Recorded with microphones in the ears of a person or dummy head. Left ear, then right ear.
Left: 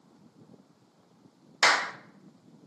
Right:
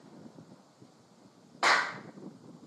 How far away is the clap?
About 1.0 m.